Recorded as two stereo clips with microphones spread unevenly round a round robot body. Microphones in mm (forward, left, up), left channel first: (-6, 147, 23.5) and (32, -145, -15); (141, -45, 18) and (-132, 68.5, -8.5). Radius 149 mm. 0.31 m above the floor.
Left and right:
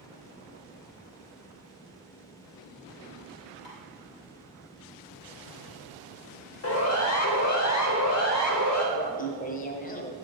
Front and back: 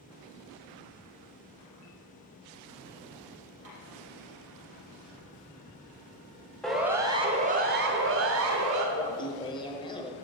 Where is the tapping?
110° left, 5 m.